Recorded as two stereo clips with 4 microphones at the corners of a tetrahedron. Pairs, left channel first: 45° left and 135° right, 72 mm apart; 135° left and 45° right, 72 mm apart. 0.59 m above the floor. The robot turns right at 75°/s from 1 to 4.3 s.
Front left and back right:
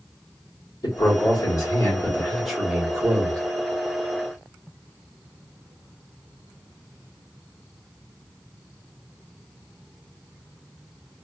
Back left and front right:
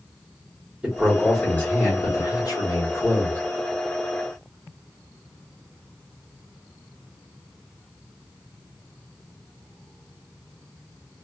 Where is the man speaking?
25° left, 1.5 m; by 3.4 s 155° right, 1.5 m.